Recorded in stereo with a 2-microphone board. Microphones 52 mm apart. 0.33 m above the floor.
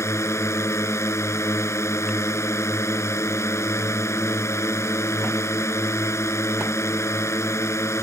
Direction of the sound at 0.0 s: 60° left (ahead or behind).